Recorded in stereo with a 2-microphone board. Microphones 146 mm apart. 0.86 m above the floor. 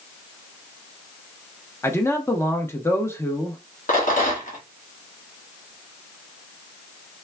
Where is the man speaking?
20° left (ahead or behind), 0.7 m.